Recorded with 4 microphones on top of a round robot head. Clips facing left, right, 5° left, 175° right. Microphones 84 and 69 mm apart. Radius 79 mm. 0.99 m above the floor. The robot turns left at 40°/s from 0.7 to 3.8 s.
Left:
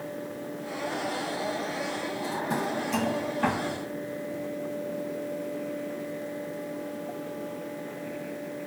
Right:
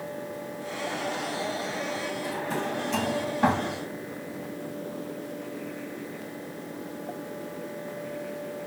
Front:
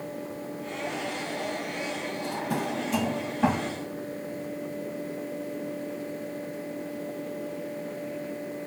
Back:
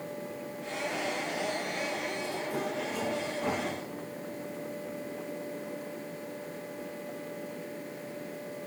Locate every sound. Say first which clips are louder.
2.2 s a drawer: left 3 dB, front 3 dB; 30° left, 3.5 m; by 3.7 s 30° right, 3.5 m